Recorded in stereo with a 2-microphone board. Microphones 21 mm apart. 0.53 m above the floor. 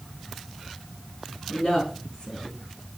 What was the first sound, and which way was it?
A woman speaking, 60° left (ahead or behind).